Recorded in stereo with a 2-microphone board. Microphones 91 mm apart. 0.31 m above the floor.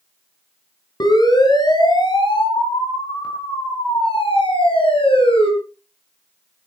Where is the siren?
50° left (ahead or behind), 7 m; by 5.5 s 75° left (ahead or behind), 10 m.